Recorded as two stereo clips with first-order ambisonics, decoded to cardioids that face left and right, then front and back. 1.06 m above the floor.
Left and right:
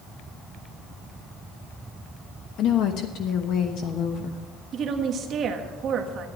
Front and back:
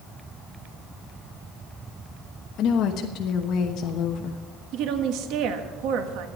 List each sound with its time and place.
2.6 s a woman speaking: 45° left, 1.1 m
4.7 s a woman speaking: 145° right, 1.4 m